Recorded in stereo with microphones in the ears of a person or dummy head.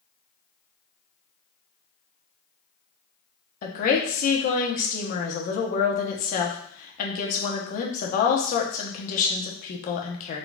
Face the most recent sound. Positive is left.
turn(degrees=45)  # may be behind; listen again after turning